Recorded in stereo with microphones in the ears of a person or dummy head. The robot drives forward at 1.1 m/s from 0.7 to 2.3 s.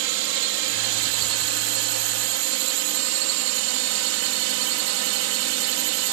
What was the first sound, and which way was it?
A drone, 65° right (ahead or behind).